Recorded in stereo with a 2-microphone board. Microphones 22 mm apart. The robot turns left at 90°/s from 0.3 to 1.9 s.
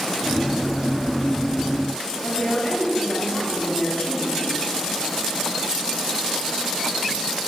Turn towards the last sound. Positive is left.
turn(degrees=70)  # may be behind; listen again after turning